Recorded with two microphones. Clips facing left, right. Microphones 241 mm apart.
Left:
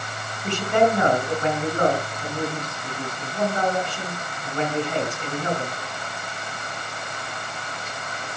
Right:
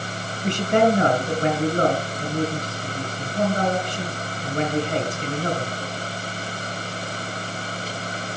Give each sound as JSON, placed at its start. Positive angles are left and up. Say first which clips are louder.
{"t": 0.4, "sound": "a man speaking", "louder": "right 2 dB", "side_deg": -40, "distance_m": 3.0}